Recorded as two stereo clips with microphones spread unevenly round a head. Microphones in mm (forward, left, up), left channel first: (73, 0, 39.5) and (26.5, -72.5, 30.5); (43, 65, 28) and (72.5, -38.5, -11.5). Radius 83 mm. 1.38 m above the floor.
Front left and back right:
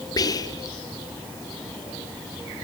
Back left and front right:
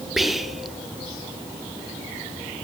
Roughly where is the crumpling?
I don't hear crumpling.